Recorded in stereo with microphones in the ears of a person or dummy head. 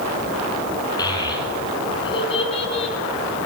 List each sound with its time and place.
1.0 s a child speaking: 25° left (ahead or behind), 9 m; by 3.0 s 35° left (ahead or behind), 8 m